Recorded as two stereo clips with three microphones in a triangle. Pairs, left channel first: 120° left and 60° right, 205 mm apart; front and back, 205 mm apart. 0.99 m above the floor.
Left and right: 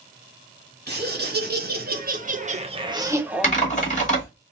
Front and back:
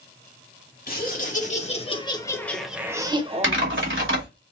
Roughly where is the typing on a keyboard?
Behind.